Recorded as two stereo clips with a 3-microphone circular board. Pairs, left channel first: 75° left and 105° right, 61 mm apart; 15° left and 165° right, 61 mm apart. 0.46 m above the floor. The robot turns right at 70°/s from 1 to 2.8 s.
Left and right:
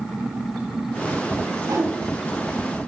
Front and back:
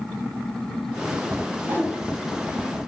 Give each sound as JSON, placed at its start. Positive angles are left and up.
{"t": 1.6, "sound": "a whoosh", "azimuth_deg": -120, "distance_m": 2.0}